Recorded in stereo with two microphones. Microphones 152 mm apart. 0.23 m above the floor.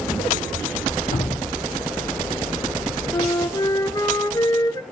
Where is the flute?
25° left (ahead or behind), 0.6 m.